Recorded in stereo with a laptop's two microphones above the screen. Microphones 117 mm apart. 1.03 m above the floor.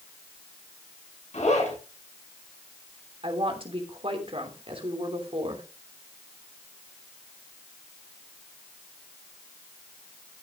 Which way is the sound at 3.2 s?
50° right (ahead or behind).